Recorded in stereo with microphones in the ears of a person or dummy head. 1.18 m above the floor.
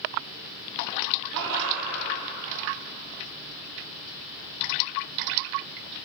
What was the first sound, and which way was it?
Laughter, 65° right (ahead or behind).